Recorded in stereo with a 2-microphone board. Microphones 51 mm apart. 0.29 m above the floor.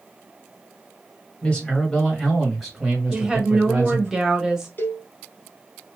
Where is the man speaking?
25° left (ahead or behind), 1.6 m; by 4.1 s 30° right (ahead or behind), 1.8 m.